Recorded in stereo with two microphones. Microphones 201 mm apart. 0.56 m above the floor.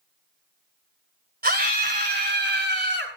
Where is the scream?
55° right (ahead or behind), 3 m; by 3.1 s 70° right (ahead or behind), 4.5 m.